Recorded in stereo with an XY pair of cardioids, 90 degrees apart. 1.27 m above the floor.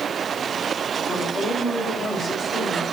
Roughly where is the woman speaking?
Ahead left.